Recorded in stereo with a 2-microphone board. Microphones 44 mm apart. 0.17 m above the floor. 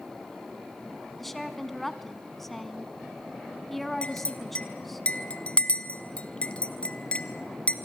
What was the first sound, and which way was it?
A woman speaking, 5° left (ahead or behind).